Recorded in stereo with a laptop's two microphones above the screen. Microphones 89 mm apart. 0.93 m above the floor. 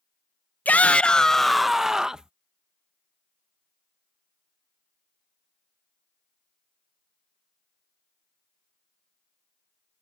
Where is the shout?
20° left (ahead or behind); by 2.3 s 10° right (ahead or behind).